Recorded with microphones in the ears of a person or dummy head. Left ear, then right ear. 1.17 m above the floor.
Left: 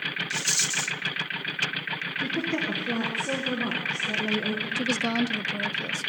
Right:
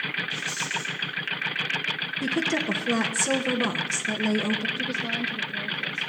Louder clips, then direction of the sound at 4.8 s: Left 2 dB; 50° left (ahead or behind).